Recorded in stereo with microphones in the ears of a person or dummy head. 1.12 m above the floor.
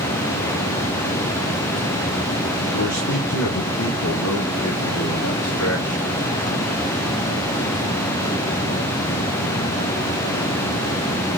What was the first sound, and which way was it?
A man speaking, 40° left (ahead or behind).